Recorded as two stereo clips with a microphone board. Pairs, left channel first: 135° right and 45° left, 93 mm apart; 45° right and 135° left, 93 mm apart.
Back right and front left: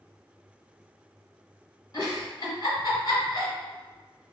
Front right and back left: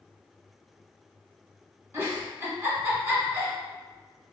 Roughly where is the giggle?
Behind.